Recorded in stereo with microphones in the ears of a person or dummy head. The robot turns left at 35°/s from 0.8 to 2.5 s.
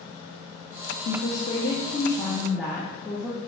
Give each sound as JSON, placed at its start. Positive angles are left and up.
{"t": 1.1, "sound": "a woman speaking", "azimuth_deg": 55, "distance_m": 0.6}